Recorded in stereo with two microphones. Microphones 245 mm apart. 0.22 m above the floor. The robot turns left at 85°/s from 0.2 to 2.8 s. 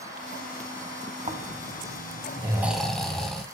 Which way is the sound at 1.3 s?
55° right.